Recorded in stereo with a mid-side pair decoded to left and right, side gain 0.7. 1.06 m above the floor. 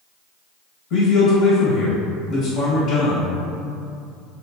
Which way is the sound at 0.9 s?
60° left.